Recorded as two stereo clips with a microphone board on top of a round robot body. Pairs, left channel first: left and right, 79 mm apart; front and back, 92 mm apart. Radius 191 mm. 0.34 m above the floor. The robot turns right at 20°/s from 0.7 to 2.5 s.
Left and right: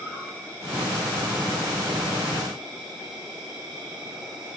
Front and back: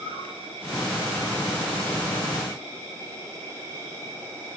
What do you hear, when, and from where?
0.0 s an insect: 155° right, 5 m; by 4.6 s 120° right, 5 m